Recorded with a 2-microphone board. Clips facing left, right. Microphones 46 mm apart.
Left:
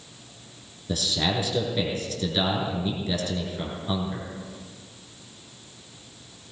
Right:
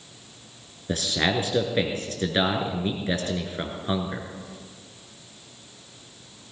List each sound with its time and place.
0.9 s a man speaking: 40° right (ahead or behind), 2.5 m